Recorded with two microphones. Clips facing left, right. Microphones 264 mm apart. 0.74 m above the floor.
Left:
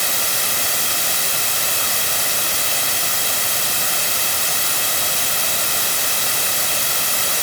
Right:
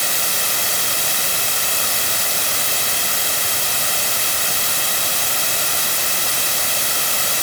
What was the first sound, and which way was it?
Only background noise.